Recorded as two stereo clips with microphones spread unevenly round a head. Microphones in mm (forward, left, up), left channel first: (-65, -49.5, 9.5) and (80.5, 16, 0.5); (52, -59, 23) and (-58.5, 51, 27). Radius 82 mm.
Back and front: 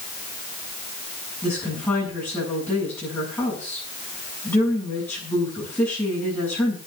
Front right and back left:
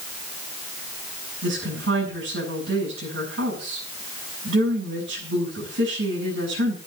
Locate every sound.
1.4 s a woman speaking: 125° left, 7 m